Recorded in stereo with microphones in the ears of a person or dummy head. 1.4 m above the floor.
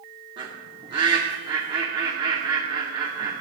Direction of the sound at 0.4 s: 25° right (ahead or behind).